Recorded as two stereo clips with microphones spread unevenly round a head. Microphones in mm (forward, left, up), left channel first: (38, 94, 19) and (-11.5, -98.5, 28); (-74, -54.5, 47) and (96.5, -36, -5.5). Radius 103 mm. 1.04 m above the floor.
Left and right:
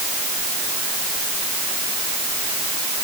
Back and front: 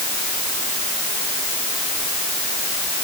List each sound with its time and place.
Only background noise.